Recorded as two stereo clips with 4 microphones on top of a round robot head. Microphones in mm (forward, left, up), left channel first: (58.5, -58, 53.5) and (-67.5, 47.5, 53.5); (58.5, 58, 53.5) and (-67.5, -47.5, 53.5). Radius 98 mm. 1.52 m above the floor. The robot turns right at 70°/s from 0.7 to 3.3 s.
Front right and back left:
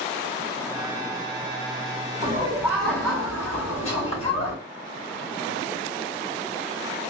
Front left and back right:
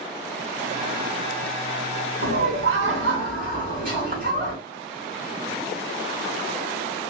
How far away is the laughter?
About 2.0 m.